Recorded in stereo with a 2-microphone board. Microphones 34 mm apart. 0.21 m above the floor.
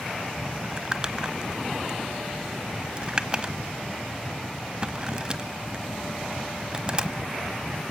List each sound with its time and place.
0.6 s crumpling: 20° right (ahead or behind), 1.1 m